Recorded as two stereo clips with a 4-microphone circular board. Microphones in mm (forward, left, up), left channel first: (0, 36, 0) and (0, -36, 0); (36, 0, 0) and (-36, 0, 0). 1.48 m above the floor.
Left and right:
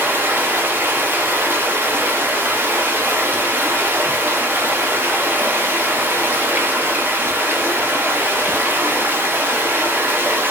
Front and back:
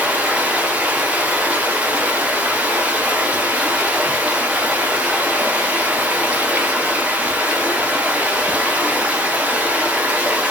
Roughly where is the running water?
Behind right.